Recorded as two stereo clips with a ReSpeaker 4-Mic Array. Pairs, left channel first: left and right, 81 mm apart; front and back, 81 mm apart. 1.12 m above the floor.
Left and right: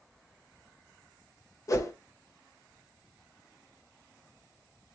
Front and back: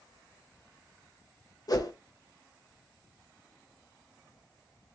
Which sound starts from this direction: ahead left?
A whoosh, at 1.7 s.